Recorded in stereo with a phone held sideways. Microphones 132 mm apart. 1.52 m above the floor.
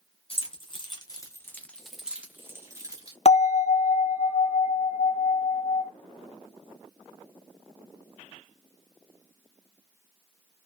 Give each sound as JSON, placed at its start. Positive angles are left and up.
{"t": 0.3, "sound": "keys jangling", "side_deg": 45, "distance_m": 0.9}
{"t": 3.2, "sound": "a bell", "side_deg": 50, "distance_m": 0.9}